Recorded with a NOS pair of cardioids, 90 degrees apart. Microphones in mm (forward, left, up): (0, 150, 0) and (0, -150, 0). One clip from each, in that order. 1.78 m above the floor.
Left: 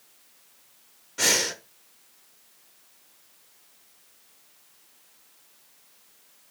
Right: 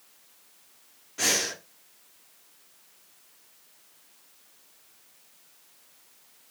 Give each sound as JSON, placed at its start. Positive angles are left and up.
{"t": 1.2, "sound": "breathing", "azimuth_deg": 15, "distance_m": 0.6}